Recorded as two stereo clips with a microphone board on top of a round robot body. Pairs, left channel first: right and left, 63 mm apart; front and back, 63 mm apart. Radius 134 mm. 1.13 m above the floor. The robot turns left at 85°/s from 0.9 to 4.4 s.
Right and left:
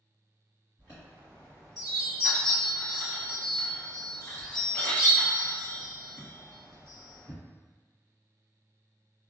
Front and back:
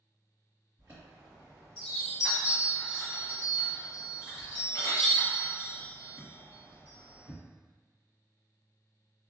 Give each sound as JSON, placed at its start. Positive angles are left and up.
{"t": 0.8, "sound": "a chime", "azimuth_deg": 140, "distance_m": 1.7}